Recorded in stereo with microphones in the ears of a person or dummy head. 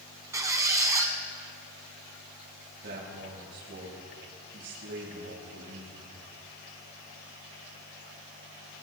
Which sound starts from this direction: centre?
A squeak, at 0.3 s.